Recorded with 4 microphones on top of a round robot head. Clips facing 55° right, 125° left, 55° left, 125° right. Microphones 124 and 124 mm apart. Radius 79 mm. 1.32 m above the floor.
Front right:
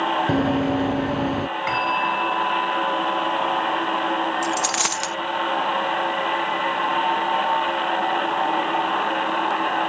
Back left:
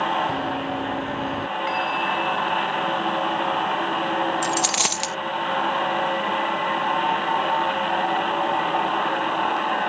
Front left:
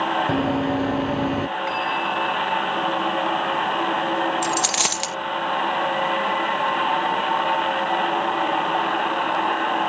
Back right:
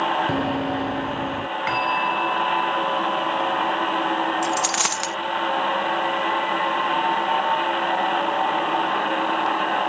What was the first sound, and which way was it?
Running footsteps, 25° right.